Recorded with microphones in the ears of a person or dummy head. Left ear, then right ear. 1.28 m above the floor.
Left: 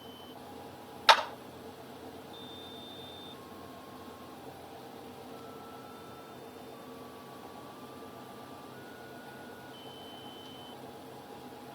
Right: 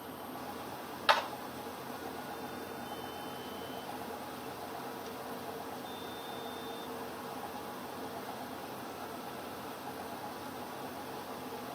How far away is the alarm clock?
No alarm clock in this recording.